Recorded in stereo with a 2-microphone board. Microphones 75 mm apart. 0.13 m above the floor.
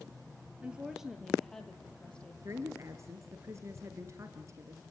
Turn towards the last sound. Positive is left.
turn(degrees=-40)  # may be behind; listen again after turning